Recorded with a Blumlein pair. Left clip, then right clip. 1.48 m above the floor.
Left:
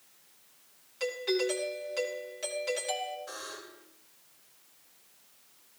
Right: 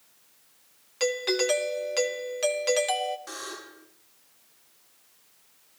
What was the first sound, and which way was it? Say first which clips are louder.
A doorbell: right 5 dB; 60° right.